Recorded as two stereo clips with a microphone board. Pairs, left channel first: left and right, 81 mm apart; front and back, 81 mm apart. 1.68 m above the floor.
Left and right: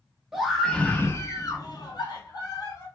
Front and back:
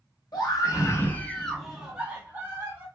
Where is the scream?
5° right, 1.0 m; by 2.9 s 120° left, 1.7 m.